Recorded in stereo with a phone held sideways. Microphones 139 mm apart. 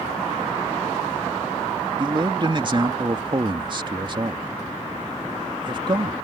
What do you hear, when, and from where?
2.0 s a man speaking: 35° right (ahead or behind)